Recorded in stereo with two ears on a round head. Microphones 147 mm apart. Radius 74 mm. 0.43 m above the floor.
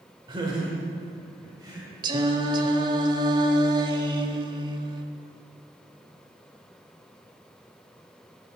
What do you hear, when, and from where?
0.3 s laughter: 30° right (ahead or behind), 1.3 m; by 1.9 s 25° right (ahead or behind), 2 m
2.0 s singing: 25° right (ahead or behind), 0.7 m